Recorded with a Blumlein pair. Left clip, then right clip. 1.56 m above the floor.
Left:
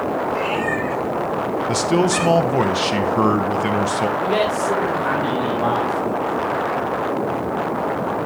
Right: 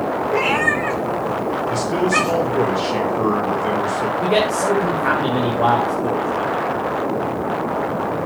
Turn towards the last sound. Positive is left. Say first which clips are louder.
# right 1 dB
turn(degrees=-10)